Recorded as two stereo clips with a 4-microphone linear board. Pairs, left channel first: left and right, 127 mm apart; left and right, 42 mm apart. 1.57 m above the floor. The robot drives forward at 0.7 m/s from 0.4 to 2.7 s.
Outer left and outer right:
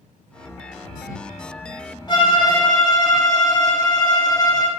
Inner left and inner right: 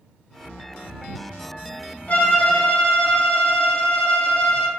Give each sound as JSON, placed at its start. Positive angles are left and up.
{"t": 2.1, "sound": "a violin", "side_deg": 35, "distance_m": 1.5}